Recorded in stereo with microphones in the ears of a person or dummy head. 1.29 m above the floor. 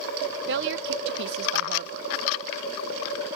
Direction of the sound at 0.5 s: 55° right (ahead or behind).